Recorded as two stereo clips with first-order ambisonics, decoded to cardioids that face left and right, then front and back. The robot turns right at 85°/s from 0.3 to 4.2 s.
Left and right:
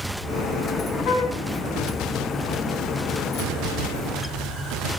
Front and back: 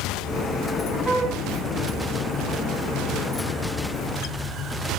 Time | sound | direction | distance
1.1 | a flute | 95° left | 6 m